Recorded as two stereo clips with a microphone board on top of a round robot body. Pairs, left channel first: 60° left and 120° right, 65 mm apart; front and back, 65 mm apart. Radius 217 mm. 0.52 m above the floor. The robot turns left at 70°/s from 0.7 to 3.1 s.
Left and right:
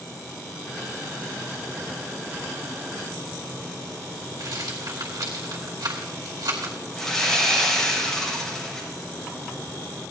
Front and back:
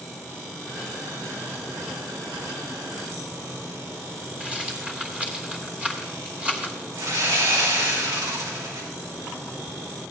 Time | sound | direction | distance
4.4 | a rattle | 110° right | 2.5 m
7.0 | sawing | 145° left | 3 m